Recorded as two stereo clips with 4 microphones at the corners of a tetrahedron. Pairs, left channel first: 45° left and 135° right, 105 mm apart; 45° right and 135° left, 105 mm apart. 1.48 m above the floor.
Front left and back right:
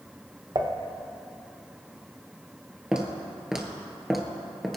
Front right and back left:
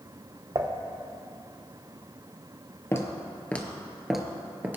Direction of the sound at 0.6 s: Straight behind.